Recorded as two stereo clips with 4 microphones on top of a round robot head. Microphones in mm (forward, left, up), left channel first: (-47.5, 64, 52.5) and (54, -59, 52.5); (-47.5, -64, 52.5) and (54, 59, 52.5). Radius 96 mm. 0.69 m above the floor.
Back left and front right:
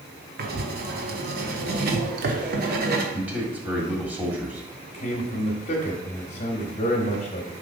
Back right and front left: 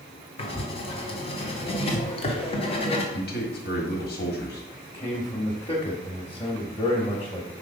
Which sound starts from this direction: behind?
A man speaking, at 4.9 s.